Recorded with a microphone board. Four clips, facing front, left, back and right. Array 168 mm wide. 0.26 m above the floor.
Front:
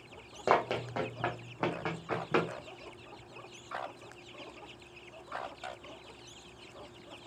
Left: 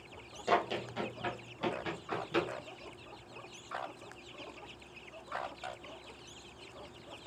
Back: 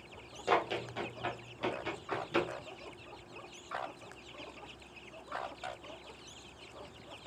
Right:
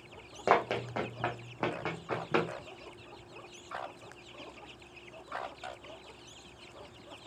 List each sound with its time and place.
0.5 s running footsteps: 50° right, 2.5 m; by 2.5 s 45° right, 4 m